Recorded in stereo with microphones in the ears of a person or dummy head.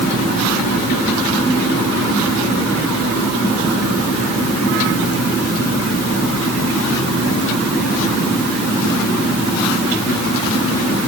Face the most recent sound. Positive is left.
No sound to turn to.